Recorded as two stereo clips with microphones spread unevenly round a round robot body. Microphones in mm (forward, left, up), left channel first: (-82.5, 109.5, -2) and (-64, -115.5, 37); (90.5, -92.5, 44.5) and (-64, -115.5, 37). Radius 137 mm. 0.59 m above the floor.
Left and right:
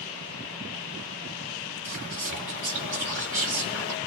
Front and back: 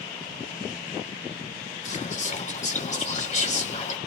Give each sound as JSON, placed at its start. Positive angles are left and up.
{"t": 1.9, "sound": "whispering", "azimuth_deg": -25, "distance_m": 1.6}